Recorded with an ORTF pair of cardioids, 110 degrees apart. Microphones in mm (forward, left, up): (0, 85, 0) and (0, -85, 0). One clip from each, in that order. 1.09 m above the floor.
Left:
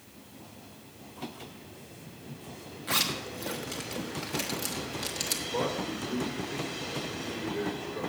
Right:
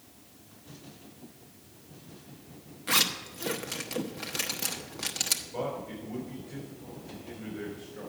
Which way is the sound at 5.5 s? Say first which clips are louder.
Left 4 dB; 70° left.